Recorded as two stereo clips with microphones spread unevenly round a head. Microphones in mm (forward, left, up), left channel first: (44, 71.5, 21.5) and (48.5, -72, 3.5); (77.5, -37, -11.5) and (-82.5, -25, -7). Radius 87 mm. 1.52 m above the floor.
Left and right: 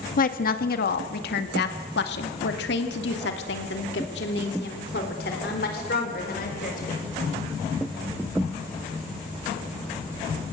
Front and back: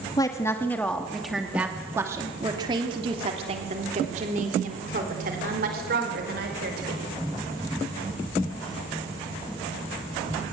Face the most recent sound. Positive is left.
turn(degrees=140)